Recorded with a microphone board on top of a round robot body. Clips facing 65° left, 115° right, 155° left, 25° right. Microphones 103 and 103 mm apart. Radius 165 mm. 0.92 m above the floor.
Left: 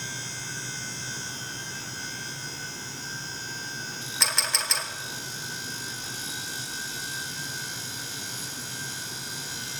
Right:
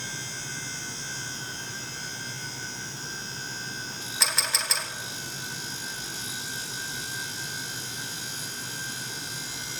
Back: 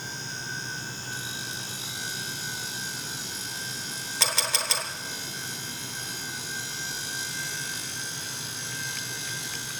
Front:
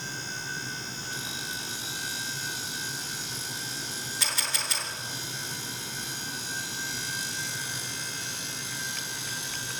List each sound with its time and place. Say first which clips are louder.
4.2 s a camera shutter: even, back 6 dB; 160° left, 1.9 m